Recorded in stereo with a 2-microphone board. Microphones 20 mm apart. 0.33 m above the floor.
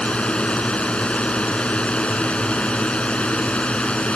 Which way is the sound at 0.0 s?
60° left (ahead or behind).